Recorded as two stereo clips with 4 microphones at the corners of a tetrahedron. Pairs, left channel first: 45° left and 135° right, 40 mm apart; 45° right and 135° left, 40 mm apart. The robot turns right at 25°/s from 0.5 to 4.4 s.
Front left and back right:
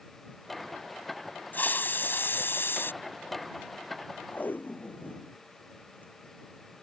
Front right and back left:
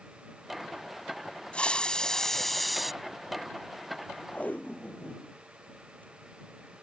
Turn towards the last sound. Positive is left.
turn(degrees=5)